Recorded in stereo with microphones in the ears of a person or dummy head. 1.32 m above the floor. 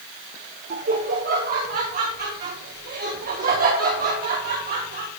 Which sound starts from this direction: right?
Laughter, at 0.7 s.